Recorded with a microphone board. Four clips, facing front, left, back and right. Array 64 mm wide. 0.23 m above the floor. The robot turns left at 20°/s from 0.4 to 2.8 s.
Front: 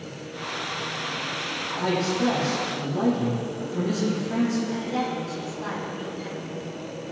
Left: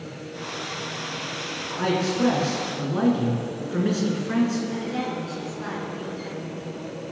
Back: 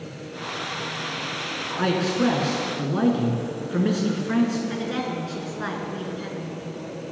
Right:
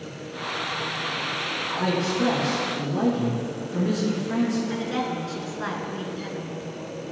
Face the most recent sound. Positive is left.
turn(degrees=-150)